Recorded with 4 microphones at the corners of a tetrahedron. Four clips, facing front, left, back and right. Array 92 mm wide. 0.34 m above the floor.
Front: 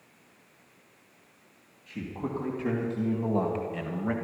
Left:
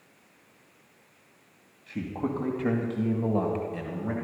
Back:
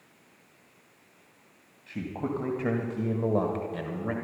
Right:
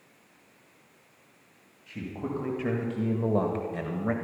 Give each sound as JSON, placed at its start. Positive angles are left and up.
{"t": 1.9, "sound": "a man speaking", "azimuth_deg": 140, "distance_m": 2.5}